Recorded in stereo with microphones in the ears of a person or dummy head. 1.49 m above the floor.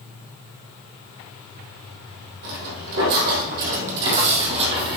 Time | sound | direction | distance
2.4 | footsteps | 60° right (ahead or behind) | 3 m